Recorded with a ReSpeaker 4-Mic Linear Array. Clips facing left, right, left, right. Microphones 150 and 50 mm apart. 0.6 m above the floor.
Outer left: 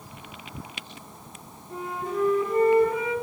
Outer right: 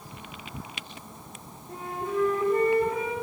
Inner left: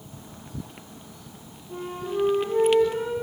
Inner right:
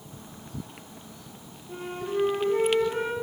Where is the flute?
50° right (ahead or behind), 3.5 m.